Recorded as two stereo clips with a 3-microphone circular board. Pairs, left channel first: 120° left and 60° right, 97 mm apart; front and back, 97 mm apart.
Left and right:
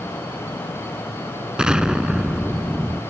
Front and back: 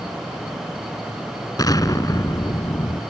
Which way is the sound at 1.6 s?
20° left.